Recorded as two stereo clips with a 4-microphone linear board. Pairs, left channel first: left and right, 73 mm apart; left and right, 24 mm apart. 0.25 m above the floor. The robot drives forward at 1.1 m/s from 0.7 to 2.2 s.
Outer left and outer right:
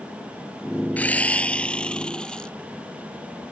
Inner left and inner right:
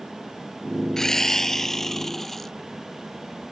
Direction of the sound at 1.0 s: 20° left (ahead or behind).